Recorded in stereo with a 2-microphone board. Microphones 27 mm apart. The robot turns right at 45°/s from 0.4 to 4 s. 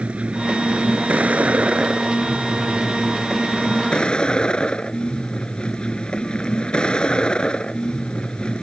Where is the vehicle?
120° right; by 8.6 s 40° left.